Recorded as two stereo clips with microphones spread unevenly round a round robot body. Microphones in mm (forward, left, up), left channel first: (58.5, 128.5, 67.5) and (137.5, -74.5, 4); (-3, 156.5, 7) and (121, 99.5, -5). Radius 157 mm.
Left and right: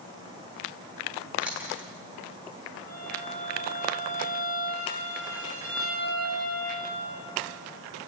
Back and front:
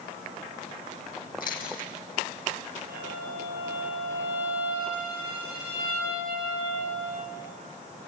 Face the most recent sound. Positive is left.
turn(degrees=-50)